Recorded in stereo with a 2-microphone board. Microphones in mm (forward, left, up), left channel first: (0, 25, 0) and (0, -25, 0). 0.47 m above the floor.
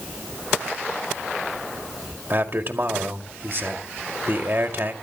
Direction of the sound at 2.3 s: 45° right (ahead or behind).